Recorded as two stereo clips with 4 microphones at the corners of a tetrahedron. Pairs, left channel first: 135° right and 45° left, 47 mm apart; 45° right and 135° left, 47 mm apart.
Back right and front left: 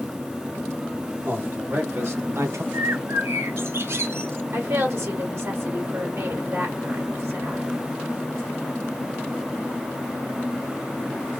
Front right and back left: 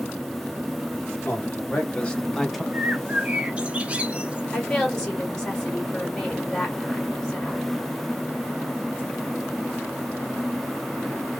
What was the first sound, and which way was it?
A man speaking, 10° left.